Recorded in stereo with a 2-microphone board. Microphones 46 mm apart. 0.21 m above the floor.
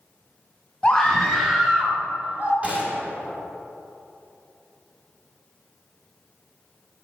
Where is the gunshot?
30° right (ahead or behind), 1.5 m.